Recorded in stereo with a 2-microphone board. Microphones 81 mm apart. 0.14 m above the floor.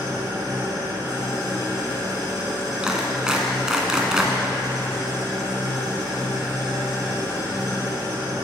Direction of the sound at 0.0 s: 50° right (ahead or behind).